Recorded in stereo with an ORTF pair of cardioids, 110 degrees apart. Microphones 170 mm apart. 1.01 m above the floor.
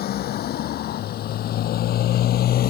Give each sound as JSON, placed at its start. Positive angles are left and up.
{"t": 0.0, "sound": "a motorcycle", "azimuth_deg": 65}